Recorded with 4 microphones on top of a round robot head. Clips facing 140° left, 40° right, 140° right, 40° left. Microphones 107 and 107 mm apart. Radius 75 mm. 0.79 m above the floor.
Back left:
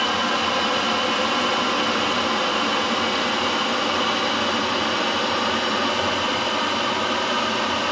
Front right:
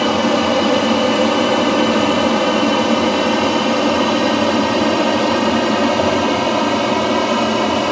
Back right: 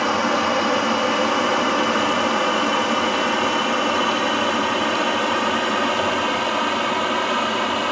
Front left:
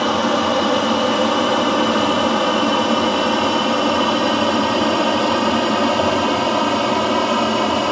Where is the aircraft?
30° right; by 7.9 s 15° right.